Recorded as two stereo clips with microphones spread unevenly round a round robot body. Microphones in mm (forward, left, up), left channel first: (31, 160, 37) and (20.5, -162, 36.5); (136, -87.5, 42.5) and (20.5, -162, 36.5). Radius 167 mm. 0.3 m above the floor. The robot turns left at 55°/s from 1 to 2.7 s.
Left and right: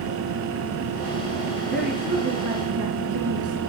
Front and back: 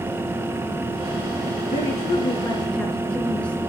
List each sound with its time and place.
1.7 s a woman speaking: 5° left, 4 m; by 3.6 s 50° right, 4 m